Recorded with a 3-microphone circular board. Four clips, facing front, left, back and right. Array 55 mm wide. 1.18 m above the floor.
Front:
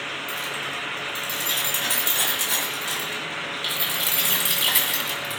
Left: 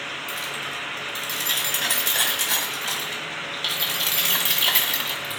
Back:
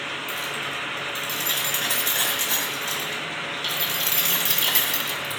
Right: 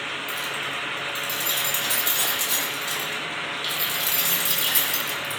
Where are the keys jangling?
105° left, 7 m; by 5.4 s 70° left, 2 m.